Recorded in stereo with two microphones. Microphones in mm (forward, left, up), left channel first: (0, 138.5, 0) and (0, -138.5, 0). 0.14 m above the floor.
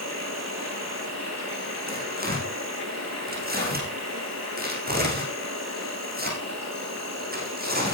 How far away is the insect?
About 6.5 m.